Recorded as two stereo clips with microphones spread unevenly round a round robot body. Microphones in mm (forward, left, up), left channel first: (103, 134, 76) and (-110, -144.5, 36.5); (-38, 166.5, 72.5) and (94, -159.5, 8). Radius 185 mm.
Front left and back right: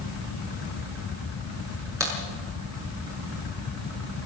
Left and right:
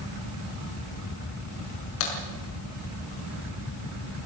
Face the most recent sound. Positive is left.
turn(degrees=150)